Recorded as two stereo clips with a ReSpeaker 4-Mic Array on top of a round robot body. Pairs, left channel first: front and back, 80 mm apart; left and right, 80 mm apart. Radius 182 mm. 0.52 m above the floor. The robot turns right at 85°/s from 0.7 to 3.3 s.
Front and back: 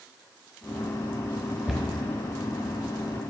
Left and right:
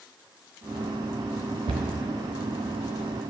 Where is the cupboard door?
95° right, 0.8 m; by 1.9 s 80° right, 0.8 m.